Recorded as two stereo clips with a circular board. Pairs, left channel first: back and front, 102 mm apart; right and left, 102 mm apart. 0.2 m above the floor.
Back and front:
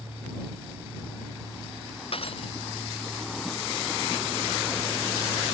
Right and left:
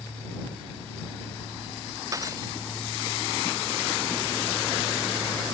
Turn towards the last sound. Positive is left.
turn(degrees=150)